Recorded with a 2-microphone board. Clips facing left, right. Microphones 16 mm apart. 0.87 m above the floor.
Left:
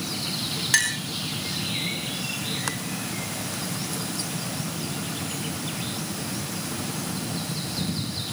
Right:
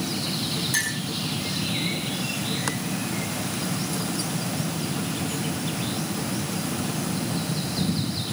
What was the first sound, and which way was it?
A clink, 50° left (ahead or behind).